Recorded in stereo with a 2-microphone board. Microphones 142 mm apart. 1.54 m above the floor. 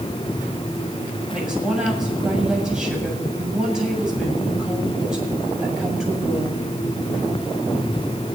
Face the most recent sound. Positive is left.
turn(degrees=-5)  # may be behind; listen again after turning